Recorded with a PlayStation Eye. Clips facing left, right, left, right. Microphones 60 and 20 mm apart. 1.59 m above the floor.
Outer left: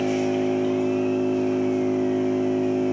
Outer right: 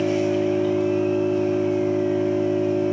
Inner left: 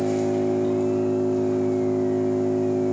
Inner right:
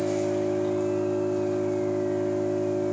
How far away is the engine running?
About 3 m.